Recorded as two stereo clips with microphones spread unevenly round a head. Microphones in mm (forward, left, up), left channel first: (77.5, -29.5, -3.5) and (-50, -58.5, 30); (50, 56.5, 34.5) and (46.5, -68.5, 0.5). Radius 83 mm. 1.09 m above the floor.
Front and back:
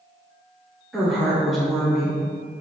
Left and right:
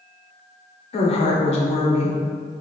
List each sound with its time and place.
0.9 s a woman speaking: 75° left, 0.7 m